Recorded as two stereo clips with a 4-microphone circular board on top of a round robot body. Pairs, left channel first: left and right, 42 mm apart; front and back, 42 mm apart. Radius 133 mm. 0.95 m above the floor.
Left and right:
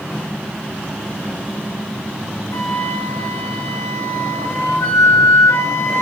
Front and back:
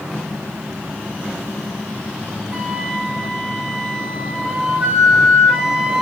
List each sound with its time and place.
2.5 s a flute: 110° left, 0.6 m